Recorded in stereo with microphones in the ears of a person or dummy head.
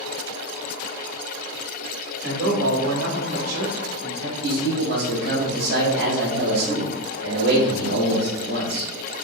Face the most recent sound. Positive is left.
turn(degrees=-75)  # may be behind; listen again after turning